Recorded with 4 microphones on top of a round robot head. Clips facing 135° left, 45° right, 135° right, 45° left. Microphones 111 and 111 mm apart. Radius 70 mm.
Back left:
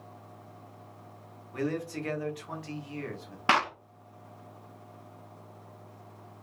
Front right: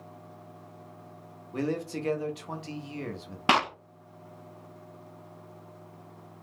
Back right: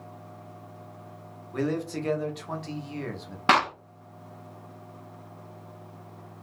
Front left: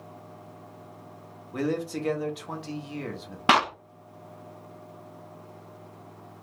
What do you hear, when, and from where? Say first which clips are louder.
1.5 s a man speaking: front right 1 dB, even; 30° right, 0.7 m
3.5 s a clap: front right 2 dB, even; 25° right, 0.5 m